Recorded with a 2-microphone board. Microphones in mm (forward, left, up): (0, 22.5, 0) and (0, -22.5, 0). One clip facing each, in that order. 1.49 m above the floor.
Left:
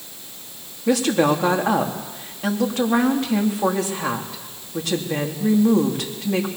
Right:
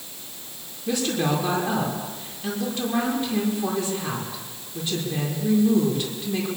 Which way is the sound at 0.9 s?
85° left.